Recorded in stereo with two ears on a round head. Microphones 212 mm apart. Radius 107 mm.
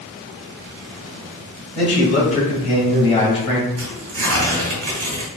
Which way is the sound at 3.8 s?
50° right (ahead or behind).